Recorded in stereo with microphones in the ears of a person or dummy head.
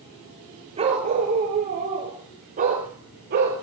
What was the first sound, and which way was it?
A dog barking, 35° right (ahead or behind).